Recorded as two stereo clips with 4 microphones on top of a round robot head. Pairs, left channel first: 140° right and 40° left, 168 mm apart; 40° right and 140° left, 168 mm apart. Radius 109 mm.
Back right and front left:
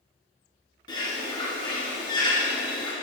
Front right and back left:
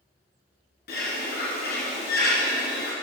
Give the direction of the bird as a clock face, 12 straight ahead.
2 o'clock.